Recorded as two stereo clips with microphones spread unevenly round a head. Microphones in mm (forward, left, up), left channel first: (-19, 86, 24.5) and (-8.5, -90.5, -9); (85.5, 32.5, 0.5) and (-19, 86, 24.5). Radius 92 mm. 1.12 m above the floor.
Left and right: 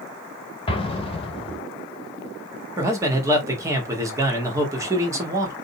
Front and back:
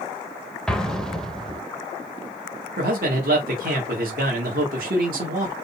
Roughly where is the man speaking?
Behind.